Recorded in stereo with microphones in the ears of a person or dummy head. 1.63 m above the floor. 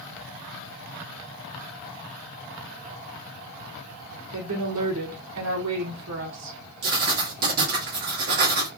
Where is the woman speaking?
70° right (ahead or behind), 1.6 m.